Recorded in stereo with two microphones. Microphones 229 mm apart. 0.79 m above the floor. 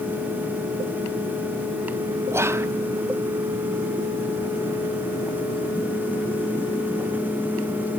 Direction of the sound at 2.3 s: 10° right (ahead or behind).